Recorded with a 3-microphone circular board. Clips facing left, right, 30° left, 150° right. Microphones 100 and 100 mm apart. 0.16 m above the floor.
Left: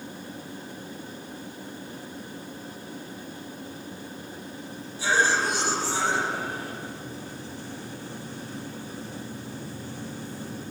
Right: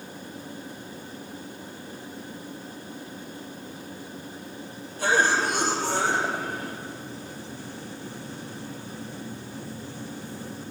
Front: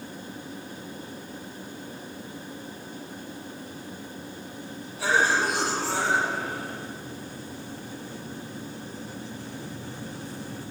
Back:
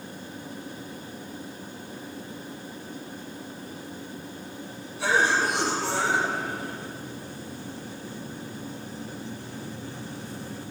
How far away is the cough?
About 4.5 m.